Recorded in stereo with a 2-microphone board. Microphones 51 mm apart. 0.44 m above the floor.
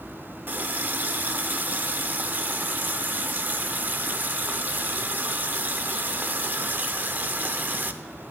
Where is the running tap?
35° right (ahead or behind), 0.6 m.